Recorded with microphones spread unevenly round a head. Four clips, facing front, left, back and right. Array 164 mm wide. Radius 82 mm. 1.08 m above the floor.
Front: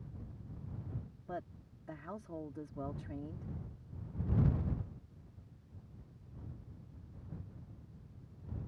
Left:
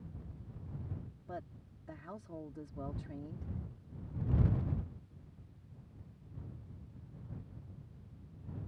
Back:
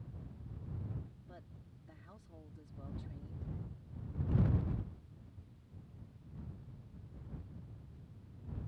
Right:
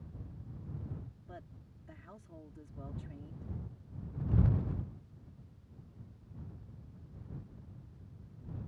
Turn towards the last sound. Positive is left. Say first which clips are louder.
# left 10 dB, front 12 dB
turn(degrees=30)